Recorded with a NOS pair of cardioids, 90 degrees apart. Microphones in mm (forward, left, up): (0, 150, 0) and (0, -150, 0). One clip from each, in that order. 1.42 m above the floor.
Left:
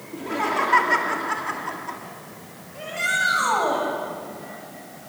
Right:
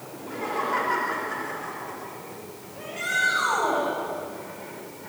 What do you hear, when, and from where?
0.1 s laughter: 70° left, 3.5 m
2.8 s a shout: 40° left, 8.5 m